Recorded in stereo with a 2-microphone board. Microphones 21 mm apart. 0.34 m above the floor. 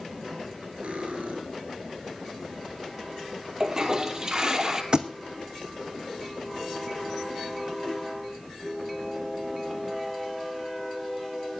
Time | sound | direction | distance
0.8 | cutlery clinking | 80° right | 4 m
3.6 | a toilet flushing | 30° right (ahead or behind) | 1.9 m
4.9 | a thud | 40° right (ahead or behind) | 1.1 m